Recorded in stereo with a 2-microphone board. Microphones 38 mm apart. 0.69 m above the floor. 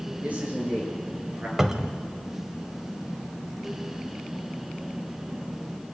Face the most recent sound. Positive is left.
turn(degrees=-15)  # may be behind; listen again after turning